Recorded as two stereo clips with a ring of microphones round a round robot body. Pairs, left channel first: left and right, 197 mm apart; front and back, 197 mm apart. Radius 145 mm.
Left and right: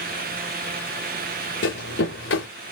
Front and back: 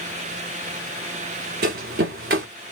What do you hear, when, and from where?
1.6 s running footsteps: 145° left, 1.5 m